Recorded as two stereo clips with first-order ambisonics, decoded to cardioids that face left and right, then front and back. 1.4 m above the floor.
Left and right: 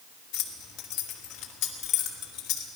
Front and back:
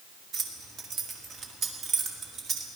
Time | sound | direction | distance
0.3 | keys jangling | 120° left | 1.6 m